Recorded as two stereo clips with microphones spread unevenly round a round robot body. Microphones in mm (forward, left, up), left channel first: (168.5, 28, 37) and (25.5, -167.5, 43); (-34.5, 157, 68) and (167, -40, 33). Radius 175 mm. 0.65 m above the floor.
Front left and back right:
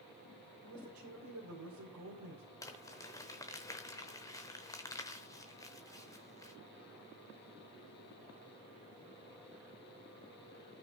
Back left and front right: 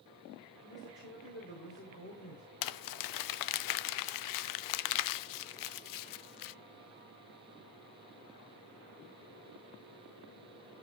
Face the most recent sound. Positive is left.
turn(degrees=135)